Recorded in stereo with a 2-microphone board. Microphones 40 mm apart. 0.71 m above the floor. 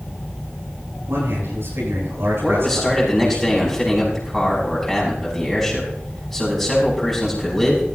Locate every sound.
1.1 s a man speaking: 85° right, 10 m
2.4 s a man speaking: 5° left (ahead or behind), 6 m